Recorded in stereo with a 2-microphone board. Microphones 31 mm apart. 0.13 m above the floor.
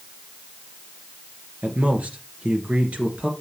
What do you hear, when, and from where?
1.6 s a man speaking: 50° right (ahead or behind), 2 m